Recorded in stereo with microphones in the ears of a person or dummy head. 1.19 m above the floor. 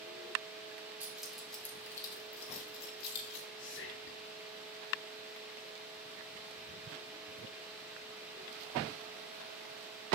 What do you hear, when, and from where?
1.0 s keys jangling: 10° right (ahead or behind), 2 m; by 3.5 s 65° left (ahead or behind), 2 m
3.6 s whispering: 60° left (ahead or behind), 0.5 m